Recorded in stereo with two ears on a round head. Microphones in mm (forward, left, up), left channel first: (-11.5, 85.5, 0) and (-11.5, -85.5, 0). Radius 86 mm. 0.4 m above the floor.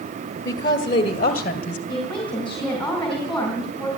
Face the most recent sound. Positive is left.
turn(degrees=5)  # may be behind; listen again after turning